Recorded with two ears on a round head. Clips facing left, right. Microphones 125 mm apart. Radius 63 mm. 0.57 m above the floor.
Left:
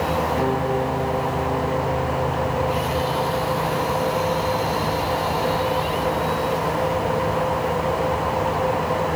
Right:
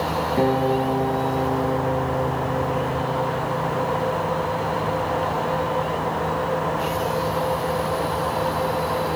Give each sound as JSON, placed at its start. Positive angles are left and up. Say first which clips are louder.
{"t": 0.4, "sound": "a guitar", "louder": "right 2 dB", "side_deg": -35, "distance_m": 5.5}